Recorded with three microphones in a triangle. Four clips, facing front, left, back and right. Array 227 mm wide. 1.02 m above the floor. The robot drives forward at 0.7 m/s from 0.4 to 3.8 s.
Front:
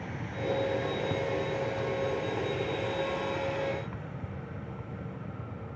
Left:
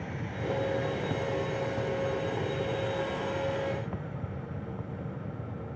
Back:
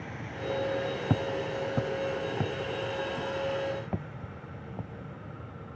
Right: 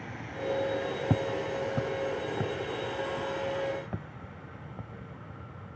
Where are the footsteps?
135° right; by 5.7 s 175° right.